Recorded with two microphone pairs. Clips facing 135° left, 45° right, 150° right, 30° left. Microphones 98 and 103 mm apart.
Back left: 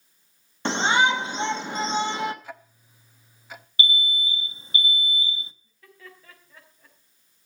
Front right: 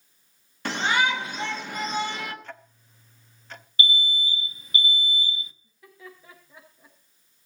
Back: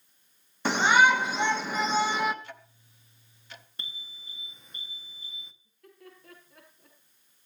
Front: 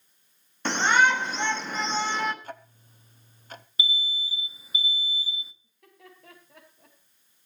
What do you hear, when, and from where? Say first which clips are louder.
0.7 s a shout: back left 3 dB, back 1 dB; 135° left, 1.3 m
2.4 s ticking: back left 1 dB, front 6 dB; 55° left, 0.8 m
3.8 s an alarm: even, front 14 dB; 115° left, 0.9 m
5.6 s laughter: front right 2 dB, back 1 dB; 30° left, 5.5 m